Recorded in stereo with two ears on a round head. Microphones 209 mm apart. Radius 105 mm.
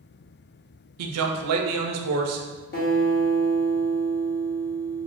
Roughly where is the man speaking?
Right.